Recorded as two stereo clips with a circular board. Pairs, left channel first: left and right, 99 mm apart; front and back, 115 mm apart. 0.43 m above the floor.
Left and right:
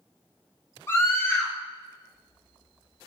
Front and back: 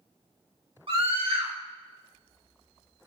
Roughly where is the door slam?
I don't hear a door slam.